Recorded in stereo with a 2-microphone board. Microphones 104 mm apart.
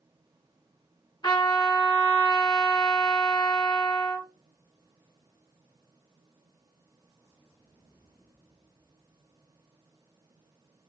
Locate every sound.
1.2 s a trumpet: 35° left (ahead or behind), 1.8 m